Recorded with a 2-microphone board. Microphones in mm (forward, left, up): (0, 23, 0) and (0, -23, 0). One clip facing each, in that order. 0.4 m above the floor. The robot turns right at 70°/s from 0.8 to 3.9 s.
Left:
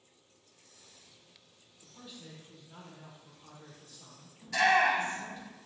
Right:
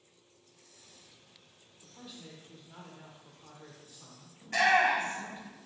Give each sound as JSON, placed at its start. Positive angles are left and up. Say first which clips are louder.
{"t": 1.8, "sound": "a man speaking", "louder": "right 1 dB", "side_deg": 10, "distance_m": 1.0}
{"t": 4.4, "sound": "a shout", "louder": "even", "side_deg": -45, "distance_m": 2.0}